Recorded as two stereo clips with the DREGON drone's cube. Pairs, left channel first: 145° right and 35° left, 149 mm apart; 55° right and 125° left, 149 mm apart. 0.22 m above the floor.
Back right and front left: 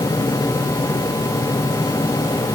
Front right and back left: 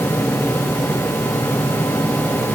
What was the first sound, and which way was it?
Only background noise.